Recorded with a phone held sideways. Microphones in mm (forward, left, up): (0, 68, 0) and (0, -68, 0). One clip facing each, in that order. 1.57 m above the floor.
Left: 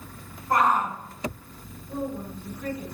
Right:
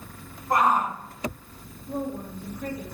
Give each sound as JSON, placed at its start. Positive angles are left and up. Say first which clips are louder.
{"t": 0.5, "sound": "a shout", "louder": "even", "side_deg": -15, "distance_m": 3.0}
{"t": 1.9, "sound": "a woman speaking", "louder": "right 1 dB", "side_deg": -55, "distance_m": 3.5}